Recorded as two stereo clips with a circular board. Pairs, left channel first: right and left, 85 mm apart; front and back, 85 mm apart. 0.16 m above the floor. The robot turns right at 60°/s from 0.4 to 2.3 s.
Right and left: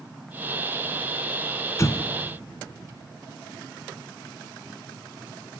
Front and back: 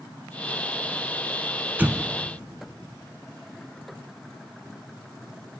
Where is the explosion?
120° right, 0.6 m; by 2.0 s 105° right, 0.6 m.